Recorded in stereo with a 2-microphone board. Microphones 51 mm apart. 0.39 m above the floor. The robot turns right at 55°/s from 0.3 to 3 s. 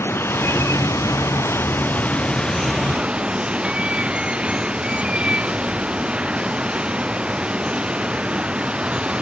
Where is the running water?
50° left; by 9.2 s 160° right.